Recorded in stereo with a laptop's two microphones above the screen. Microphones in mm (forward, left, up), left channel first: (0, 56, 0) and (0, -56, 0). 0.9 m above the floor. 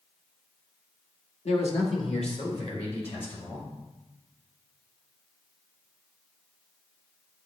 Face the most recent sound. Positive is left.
turn(degrees=65)  # may be behind; listen again after turning